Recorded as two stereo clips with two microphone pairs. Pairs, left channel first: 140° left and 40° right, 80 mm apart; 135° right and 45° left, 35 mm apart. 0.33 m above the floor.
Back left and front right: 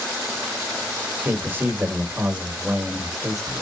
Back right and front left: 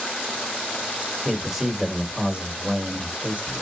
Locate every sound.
1.2 s a man speaking: 45° right, 1.5 m; by 3.6 s 45° left, 1.8 m